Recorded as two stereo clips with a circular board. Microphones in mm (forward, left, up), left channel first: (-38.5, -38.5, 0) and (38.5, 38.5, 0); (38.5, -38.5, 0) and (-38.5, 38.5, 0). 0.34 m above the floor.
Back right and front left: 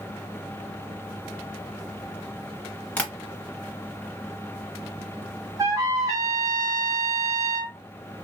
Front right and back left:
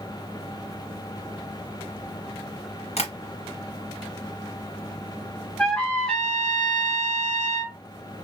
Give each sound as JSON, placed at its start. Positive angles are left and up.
{"t": 3.0, "sound": "tapping", "azimuth_deg": -60, "distance_m": 1.7}
{"t": 5.6, "sound": "a trumpet", "azimuth_deg": 25, "distance_m": 1.4}